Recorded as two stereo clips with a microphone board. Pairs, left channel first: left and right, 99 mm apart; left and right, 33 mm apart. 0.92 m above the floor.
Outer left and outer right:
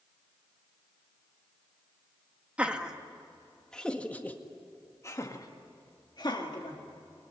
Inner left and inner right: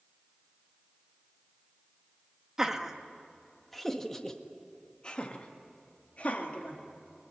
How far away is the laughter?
About 1.7 m.